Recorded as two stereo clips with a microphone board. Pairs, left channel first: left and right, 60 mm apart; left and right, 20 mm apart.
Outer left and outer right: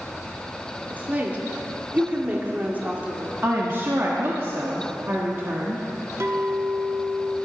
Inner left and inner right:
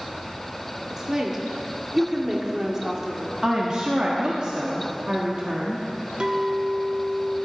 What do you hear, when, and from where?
0.9 s a woman speaking: 25° right (ahead or behind), 1.5 m
3.4 s a woman speaking: 40° right (ahead or behind), 1.3 m
6.2 s a clink: 50° right (ahead or behind), 0.9 m